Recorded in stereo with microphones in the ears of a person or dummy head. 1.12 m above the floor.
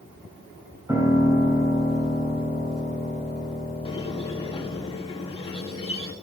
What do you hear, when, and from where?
0.9 s a piano: 15° right (ahead or behind), 2.5 m
3.9 s a squeak: 25° left (ahead or behind), 1.1 m